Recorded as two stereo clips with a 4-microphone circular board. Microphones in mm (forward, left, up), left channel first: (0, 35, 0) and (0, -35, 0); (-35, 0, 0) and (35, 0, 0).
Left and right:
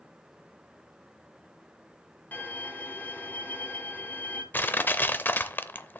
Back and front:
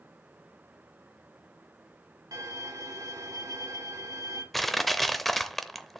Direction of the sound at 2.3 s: 25° left.